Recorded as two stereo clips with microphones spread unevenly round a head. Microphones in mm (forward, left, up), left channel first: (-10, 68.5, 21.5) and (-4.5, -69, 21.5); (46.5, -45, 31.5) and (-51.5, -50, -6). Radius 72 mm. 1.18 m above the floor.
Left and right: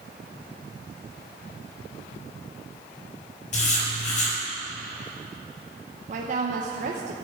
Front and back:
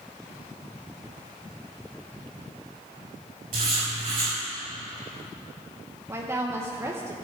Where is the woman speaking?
120° right, 1.0 m.